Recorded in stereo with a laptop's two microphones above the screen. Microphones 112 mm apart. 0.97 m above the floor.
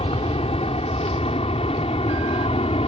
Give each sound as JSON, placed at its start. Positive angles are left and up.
{"t": 0.0, "sound": "an aircraft", "side_deg": 65}